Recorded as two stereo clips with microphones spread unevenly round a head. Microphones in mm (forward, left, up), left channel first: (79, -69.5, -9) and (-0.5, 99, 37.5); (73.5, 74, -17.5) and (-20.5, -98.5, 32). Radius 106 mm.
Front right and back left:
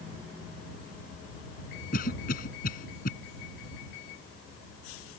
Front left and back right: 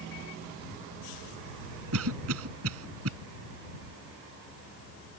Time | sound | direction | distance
1.9 | a cough | 120° right | ?